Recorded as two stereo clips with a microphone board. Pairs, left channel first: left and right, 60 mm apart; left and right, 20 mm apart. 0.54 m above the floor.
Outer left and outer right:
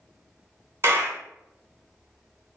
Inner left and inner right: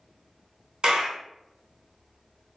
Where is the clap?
45° right (ahead or behind), 1.0 m.